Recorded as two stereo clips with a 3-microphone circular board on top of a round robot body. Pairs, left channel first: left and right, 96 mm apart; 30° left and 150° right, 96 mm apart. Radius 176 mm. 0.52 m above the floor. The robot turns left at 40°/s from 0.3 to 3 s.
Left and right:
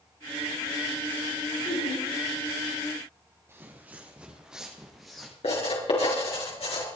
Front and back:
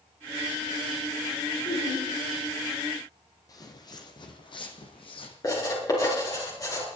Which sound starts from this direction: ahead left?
Laughter, at 1.6 s.